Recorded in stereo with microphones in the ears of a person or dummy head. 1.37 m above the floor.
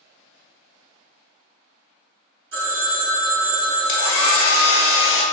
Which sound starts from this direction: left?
A hair dryer, at 3.9 s.